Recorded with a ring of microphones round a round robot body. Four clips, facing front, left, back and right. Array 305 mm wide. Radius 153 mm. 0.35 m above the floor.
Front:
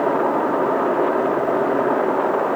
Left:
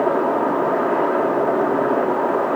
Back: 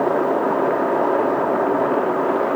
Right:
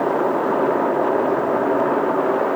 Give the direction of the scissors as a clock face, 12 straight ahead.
I don't hear scissors.